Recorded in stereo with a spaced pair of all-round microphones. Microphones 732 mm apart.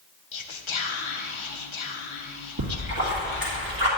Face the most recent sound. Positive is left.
turn(degrees=-30)  # may be behind; listen again after turning